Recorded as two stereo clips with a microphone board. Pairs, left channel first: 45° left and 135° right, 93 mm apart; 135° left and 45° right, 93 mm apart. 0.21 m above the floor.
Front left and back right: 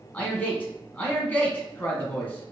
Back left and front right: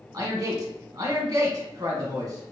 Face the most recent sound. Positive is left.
turn(degrees=-20)